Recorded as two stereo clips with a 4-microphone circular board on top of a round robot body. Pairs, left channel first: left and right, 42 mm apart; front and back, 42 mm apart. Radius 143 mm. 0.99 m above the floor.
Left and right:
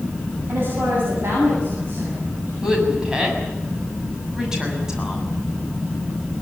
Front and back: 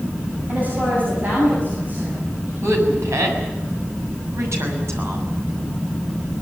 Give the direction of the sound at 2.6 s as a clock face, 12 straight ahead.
6 o'clock.